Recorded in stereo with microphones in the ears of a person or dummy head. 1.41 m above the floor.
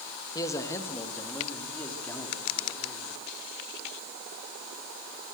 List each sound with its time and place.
0.3 s a man speaking: 20° left (ahead or behind), 2.5 m; by 3.1 s 5° left (ahead or behind), 5.5 m